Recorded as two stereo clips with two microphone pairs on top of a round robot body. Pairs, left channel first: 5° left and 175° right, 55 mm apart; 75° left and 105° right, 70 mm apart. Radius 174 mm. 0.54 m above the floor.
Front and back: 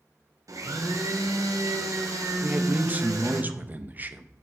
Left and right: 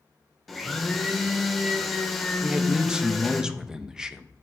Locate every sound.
0.5 s a blender: 165° left, 1.1 m
2.4 s a man speaking: 170° right, 1.0 m